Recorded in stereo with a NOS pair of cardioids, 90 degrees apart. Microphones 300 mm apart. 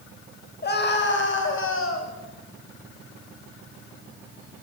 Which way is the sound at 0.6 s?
35° left.